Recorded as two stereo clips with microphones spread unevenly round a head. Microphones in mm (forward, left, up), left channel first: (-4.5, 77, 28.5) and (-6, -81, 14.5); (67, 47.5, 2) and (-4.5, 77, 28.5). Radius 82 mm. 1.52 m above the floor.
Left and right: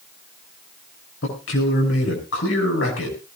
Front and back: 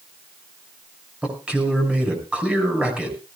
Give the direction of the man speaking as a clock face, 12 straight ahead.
9 o'clock.